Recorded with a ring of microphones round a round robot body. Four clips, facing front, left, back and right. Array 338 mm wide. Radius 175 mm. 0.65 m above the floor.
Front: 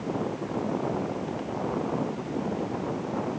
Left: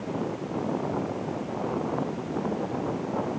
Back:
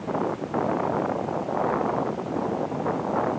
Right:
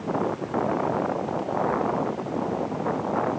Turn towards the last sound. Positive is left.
No sound to turn to.